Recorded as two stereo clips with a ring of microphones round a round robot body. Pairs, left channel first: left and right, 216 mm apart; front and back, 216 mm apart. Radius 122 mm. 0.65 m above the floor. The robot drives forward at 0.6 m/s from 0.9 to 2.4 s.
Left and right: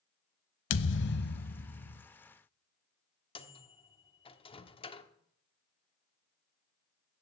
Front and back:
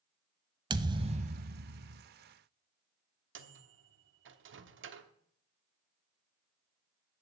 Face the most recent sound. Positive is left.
turn(degrees=155)